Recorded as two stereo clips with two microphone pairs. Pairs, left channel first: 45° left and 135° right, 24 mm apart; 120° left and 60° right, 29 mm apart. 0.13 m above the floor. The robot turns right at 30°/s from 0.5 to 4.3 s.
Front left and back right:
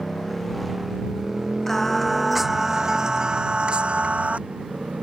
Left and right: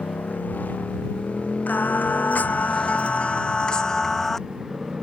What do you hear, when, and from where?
0.0 s a motorcycle: 135° left; by 5.0 s 120° right
1.7 s singing: 120° left; by 4.4 s 160° right